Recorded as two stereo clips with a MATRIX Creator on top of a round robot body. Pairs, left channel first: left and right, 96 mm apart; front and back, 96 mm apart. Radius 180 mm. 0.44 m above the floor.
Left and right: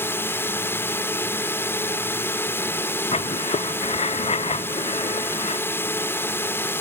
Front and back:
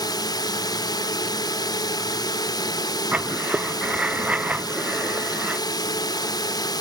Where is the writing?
100° left.